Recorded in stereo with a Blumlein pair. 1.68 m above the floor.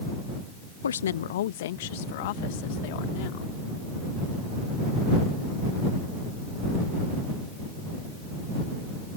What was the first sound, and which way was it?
A woman speaking, 70° left.